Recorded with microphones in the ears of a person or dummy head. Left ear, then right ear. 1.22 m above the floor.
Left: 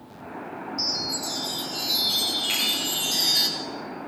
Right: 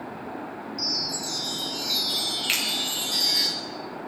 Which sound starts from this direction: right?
A finger snap, at 2.5 s.